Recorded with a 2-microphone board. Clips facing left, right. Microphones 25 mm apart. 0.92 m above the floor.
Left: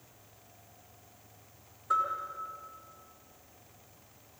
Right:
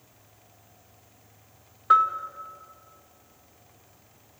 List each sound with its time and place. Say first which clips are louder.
1.9 s a bell: right 10 dB; 50° right (ahead or behind), 1.9 m